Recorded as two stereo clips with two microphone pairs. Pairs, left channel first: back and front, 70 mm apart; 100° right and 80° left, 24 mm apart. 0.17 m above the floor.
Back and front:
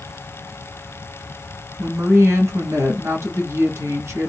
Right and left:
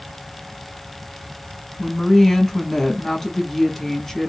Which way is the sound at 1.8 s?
25° right.